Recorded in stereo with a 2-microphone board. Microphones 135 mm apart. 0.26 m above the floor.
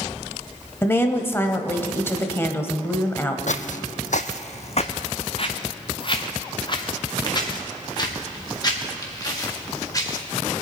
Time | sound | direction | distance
0.8 | a woman speaking | 15° left (ahead or behind) | 1.2 m
3.5 | footsteps | 65° left (ahead or behind) | 0.6 m